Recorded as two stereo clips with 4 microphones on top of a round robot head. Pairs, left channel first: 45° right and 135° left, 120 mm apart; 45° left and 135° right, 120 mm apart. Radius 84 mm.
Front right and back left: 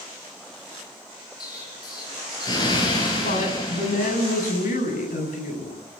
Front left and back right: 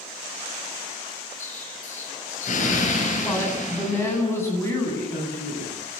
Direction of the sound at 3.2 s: 25° right.